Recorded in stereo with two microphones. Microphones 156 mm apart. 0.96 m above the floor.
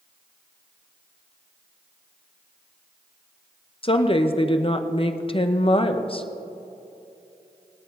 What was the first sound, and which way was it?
A woman speaking, 35° left (ahead or behind).